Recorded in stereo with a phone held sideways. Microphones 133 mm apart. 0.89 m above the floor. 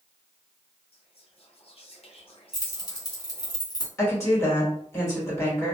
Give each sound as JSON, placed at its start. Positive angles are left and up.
{"t": 0.9, "sound": "whispering", "side_deg": 45, "distance_m": 0.8}
{"t": 2.5, "sound": "keys jangling", "side_deg": 30, "distance_m": 0.8}
{"t": 4.0, "sound": "a woman speaking", "side_deg": 20, "distance_m": 1.5}